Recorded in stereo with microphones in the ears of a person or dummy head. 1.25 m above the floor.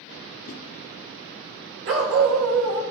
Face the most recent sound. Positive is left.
turn(degrees=-80)